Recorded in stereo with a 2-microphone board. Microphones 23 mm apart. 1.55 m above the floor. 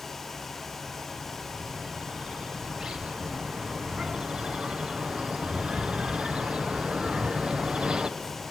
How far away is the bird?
About 0.8 m.